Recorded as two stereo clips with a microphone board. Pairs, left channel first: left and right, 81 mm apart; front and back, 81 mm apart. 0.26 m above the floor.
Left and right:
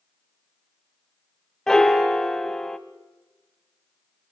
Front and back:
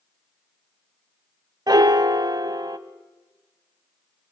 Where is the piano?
175° left, 0.8 m.